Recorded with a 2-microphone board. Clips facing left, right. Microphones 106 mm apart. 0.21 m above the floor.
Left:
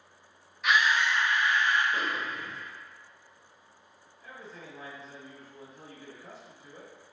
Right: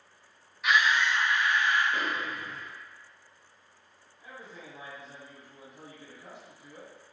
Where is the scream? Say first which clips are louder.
Even; centre (ahead or behind), 1.2 m; by 1.8 s 35° left (ahead or behind), 1.6 m.